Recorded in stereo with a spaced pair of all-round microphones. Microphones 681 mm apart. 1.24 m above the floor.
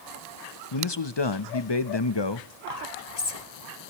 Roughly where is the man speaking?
Left.